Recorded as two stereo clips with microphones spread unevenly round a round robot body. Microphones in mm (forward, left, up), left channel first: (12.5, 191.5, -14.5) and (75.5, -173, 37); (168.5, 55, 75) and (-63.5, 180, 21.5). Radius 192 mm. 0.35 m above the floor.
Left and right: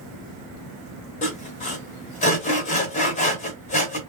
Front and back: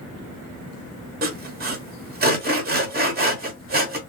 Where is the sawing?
155° left, 0.8 m.